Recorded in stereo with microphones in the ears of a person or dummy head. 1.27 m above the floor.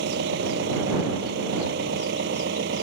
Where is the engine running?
70° right (ahead or behind).